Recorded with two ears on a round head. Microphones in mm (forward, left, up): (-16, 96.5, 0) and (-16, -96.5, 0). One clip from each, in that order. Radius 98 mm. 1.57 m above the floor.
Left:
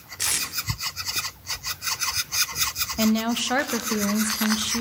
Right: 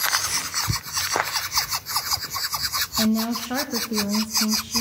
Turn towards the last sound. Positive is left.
turn(degrees=65)  # may be behind; listen again after turning